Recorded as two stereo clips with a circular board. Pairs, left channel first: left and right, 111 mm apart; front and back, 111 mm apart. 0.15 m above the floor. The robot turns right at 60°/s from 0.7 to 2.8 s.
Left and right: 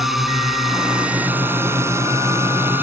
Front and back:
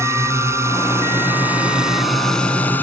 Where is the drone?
175° right; by 2.8 s 50° right.